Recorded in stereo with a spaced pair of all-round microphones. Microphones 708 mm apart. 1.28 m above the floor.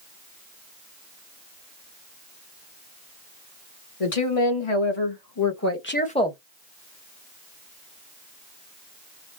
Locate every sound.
4.0 s a woman speaking: 50° left (ahead or behind), 1.6 m; by 6.4 s centre (ahead or behind), 1.2 m